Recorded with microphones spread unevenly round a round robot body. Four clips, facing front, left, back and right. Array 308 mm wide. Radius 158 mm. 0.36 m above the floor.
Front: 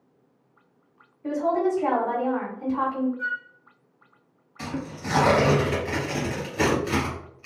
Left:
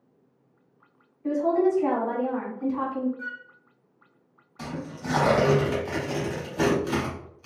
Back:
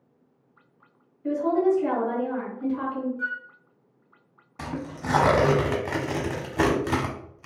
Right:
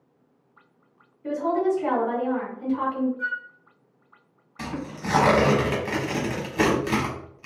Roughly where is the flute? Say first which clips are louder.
Right 7 dB, front 1 dB; behind left.